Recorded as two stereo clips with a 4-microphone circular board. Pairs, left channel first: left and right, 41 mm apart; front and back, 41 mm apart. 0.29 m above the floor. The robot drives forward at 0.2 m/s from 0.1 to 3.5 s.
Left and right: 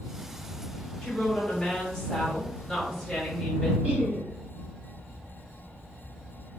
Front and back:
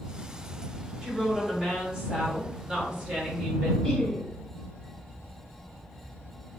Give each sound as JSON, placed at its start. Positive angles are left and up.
{"t": 1.0, "sound": "a woman speaking", "azimuth_deg": 130, "distance_m": 1.2}
{"t": 3.8, "sound": "laughter", "azimuth_deg": -85, "distance_m": 1.8}